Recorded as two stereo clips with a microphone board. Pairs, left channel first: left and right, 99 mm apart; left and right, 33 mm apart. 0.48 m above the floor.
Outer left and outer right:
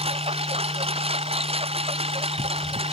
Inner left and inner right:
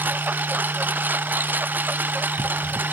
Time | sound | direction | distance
0.0 | a lawn mower | 80° right | ?